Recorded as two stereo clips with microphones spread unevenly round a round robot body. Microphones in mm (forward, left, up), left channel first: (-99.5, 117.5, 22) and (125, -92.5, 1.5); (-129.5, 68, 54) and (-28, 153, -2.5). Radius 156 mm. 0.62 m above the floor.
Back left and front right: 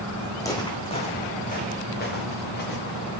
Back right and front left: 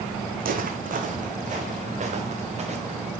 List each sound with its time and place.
0.4 s footsteps: 60° left, 1.7 m; by 3.1 s 85° left, 3.5 m